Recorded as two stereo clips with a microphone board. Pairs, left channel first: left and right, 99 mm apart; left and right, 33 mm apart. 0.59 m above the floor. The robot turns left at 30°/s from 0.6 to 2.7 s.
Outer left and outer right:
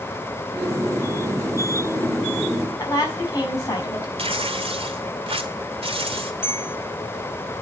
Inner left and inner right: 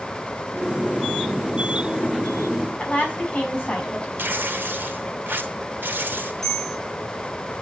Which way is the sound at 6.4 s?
20° left (ahead or behind).